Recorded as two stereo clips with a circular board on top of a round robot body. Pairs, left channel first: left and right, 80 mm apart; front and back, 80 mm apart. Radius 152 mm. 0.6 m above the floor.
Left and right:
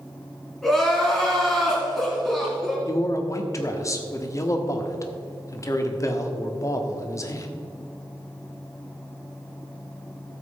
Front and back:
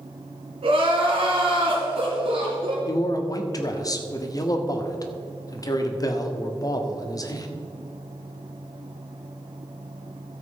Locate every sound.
0.6 s crying: 175° left, 2.5 m
2.9 s a man speaking: 40° left, 1.5 m